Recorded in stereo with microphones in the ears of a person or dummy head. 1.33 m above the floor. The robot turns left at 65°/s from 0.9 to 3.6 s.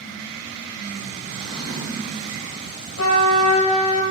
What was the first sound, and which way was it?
A drawer, 100° right.